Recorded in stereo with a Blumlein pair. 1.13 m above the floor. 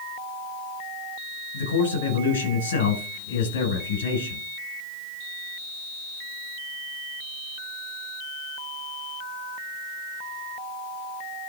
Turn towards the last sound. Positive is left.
turn(degrees=65)